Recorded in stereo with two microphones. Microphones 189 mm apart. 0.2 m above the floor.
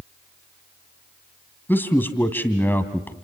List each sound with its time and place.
1.7 s a man speaking: 10° left (ahead or behind), 1.6 m